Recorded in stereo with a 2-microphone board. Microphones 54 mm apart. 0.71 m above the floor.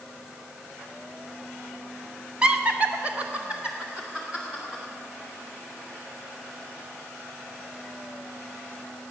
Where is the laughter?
20° right (ahead or behind), 1.1 m; by 4.8 s 10° right (ahead or behind), 3.5 m.